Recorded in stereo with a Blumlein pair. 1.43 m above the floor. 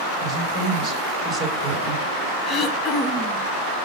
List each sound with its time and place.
0.2 s a woman speaking: 10° right, 7 m
2.5 s throat clearing: 15° left, 2.0 m